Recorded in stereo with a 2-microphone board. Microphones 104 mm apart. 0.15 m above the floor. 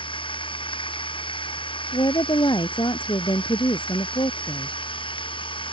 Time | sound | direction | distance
0.0 | running water | 55° left (ahead or behind) | ?
1.9 | a woman speaking | 50° left (ahead or behind) | ?